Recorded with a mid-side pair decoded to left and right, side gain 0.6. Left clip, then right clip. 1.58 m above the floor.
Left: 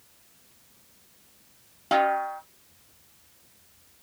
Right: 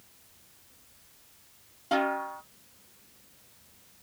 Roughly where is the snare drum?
Ahead left.